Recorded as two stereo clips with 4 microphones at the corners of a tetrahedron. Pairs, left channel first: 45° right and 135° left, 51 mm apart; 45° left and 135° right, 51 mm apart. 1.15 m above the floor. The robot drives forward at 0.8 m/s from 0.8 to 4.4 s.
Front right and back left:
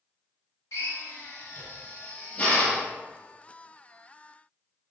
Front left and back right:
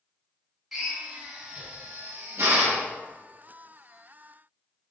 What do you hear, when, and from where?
0.7 s a drill: 50° right, 1.5 m; by 2.9 s 120° right, 1.4 m